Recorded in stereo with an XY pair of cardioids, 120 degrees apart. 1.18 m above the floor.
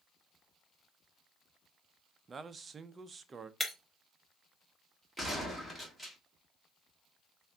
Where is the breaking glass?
10° left, 1.1 m.